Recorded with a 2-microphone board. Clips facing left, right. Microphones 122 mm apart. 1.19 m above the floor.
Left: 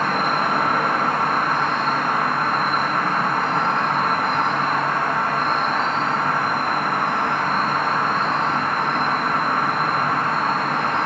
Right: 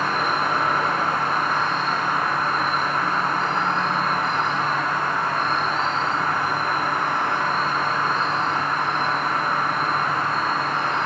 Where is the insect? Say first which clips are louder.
Left 2 dB; 55° left (ahead or behind), 0.9 m.